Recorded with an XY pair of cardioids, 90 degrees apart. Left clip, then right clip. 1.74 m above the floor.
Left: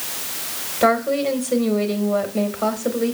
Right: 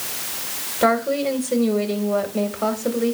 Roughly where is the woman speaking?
Ahead.